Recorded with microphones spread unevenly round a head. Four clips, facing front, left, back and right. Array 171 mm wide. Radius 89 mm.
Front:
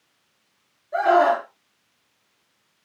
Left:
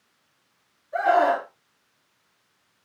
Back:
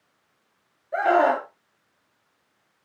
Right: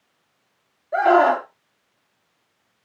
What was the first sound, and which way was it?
A scream, 95° right.